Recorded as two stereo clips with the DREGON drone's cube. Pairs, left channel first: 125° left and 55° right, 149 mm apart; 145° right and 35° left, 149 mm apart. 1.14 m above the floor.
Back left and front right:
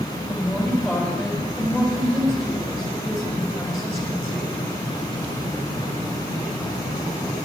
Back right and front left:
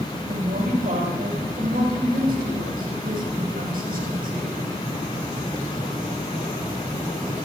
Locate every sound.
0.3 s a woman speaking: 35° left, 6 m